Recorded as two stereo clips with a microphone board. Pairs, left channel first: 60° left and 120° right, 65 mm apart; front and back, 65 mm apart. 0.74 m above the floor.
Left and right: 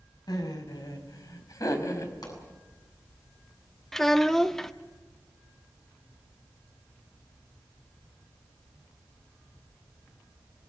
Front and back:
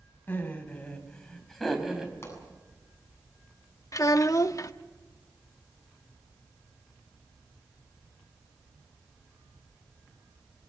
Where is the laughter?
60° left, 4 m; by 2.1 s 100° left, 4 m.